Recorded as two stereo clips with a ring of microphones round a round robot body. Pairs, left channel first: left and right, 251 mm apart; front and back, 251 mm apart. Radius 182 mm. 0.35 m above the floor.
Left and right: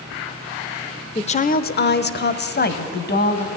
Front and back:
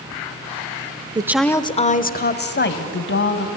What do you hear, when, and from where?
1.1 s a woman speaking: 130° left, 0.8 m; by 3.5 s 40° left, 3 m